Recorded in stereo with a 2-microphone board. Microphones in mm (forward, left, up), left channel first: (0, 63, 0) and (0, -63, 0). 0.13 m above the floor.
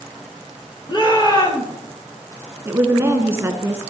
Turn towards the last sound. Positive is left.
turn(degrees=-20)  # may be behind; listen again after turning